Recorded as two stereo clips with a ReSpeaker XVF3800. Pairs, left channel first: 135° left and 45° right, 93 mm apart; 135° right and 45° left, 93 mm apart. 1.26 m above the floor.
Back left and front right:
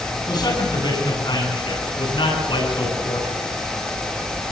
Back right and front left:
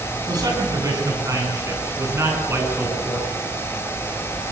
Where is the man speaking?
90° left, 9 m; by 3.4 s 110° left, 12 m.